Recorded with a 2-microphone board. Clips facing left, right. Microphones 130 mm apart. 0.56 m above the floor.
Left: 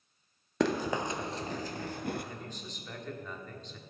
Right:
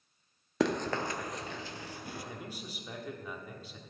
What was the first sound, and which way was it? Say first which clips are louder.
Running footsteps: left 1 dB; centre (ahead or behind).